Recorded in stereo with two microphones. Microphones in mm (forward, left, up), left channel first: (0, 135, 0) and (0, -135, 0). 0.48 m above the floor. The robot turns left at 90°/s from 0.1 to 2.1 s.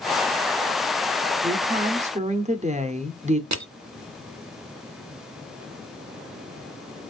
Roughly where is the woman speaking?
Centre.